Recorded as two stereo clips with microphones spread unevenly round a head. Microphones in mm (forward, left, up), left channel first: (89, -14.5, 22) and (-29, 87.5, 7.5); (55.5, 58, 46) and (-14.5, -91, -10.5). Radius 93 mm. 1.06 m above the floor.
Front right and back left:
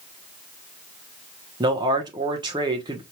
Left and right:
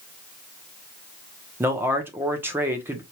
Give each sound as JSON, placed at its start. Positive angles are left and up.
{"t": 1.6, "sound": "a man speaking", "azimuth_deg": -170, "distance_m": 1.1}